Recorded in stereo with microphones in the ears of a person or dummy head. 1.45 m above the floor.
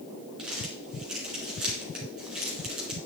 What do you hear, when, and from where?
0.4 s crumpling: 5° right (ahead or behind), 3 m